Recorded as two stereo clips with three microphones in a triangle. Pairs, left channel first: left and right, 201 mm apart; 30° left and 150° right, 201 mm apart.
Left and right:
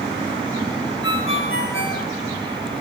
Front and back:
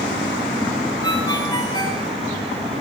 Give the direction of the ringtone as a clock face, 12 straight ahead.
9 o'clock.